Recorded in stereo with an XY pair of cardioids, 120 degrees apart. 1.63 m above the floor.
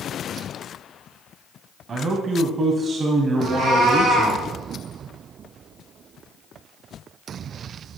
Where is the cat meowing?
65° right, 3.5 m.